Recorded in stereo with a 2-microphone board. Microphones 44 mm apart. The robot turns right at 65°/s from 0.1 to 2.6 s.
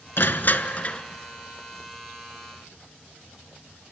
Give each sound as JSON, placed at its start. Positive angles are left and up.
{"t": 0.2, "sound": "crushing", "azimuth_deg": 95, "distance_m": 0.9}